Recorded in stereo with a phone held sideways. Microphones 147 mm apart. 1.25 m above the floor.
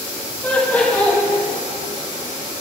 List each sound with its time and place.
0.4 s laughter: 10° left (ahead or behind), 2.5 m